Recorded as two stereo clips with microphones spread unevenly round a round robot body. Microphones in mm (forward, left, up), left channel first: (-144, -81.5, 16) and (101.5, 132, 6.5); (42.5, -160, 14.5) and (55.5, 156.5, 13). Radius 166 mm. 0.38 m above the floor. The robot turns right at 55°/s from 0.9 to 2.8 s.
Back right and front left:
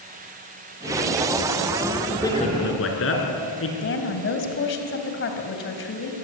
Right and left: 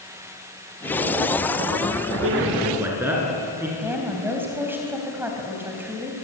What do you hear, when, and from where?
2.2 s a man speaking: 140° left, 6 m; by 3.7 s 170° left, 6 m
3.8 s a woman speaking: 170° left, 3 m